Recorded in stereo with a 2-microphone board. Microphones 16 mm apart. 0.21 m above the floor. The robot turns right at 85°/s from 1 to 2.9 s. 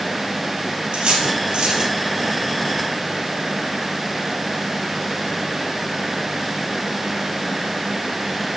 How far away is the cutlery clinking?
About 2.5 m.